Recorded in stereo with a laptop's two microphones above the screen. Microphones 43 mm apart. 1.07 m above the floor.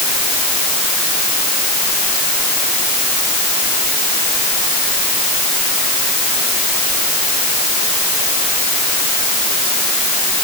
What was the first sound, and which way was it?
Only background noise.